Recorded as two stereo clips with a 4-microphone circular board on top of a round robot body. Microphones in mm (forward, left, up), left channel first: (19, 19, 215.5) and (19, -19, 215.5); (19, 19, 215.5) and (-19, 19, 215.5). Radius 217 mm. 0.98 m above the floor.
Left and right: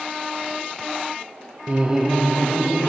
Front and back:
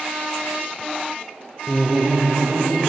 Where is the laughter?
50° right, 0.6 m; by 2.9 s 165° left, 1.3 m.